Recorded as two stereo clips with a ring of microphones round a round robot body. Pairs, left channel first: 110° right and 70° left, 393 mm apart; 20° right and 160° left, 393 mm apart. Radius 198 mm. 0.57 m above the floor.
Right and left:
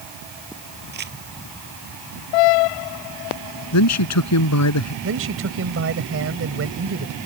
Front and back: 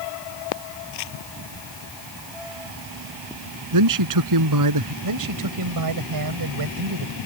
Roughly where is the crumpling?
Ahead.